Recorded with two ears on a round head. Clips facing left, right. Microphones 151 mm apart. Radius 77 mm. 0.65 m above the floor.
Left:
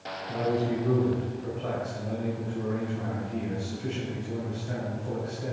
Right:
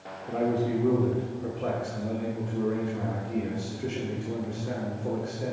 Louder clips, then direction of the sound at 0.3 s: Right 1 dB; 65° right (ahead or behind).